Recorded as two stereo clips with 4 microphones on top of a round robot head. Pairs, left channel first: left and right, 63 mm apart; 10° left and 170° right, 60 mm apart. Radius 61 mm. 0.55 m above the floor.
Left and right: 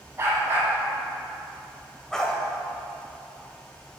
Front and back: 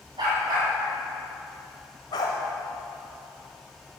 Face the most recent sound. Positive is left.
turn(degrees=10)